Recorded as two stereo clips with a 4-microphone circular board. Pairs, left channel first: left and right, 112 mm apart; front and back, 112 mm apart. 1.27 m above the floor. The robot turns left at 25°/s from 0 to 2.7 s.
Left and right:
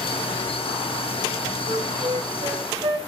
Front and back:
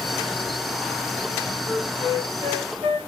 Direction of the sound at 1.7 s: 115° right.